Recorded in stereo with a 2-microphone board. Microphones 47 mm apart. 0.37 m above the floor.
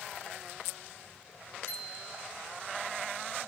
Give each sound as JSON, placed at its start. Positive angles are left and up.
{"t": 1.7, "sound": "a bicycle bell", "side_deg": 55, "distance_m": 5.5}